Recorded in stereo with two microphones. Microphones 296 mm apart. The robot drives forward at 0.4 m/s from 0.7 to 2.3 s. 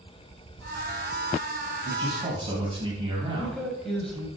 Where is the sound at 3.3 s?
Centre (ahead or behind), 1.3 m.